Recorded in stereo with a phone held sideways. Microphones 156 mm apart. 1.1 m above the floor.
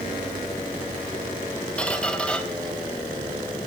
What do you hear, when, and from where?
1.8 s a squeak: 5° left (ahead or behind), 1.1 m